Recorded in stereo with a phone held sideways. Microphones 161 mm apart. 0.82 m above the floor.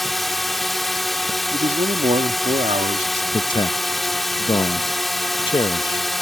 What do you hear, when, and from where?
0.0 s a drone: centre (ahead or behind)
1.5 s a man speaking: 45° right (ahead or behind)
3.3 s a man speaking: 30° left (ahead or behind)